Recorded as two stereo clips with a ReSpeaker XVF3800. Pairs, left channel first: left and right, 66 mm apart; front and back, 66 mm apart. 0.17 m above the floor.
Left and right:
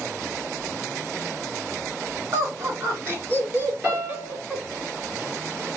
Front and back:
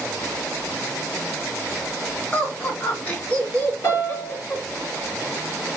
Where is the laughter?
65° right, 2 m; by 4.7 s 30° right, 1.5 m.